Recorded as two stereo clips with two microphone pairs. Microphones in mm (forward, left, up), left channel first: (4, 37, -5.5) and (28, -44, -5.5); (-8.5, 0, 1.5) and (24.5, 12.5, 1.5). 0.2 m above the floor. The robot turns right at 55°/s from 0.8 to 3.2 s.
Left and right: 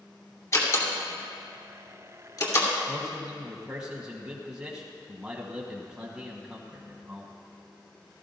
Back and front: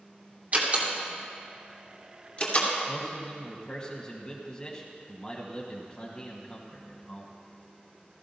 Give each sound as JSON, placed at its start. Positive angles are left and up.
{"t": 0.5, "sound": "a door slam", "azimuth_deg": 55, "distance_m": 2.5}
{"t": 2.9, "sound": "a man speaking", "azimuth_deg": -155, "distance_m": 1.5}